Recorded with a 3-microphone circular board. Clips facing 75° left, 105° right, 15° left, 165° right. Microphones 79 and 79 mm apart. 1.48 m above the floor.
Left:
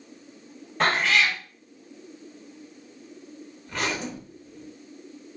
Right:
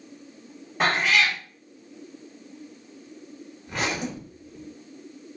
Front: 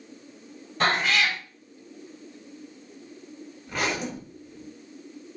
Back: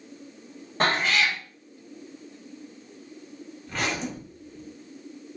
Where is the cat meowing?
175° left, 1.2 m.